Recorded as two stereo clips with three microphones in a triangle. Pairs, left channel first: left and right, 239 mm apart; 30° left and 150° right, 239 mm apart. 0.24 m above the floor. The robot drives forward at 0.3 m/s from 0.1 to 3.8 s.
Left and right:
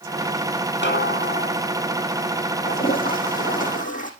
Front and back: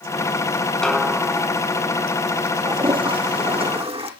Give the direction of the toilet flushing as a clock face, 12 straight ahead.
7 o'clock.